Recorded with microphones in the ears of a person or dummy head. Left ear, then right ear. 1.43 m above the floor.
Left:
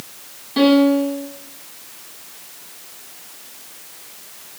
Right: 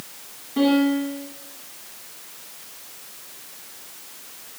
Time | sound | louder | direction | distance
0.6 | a piano | left 6 dB | 85° left | 9 m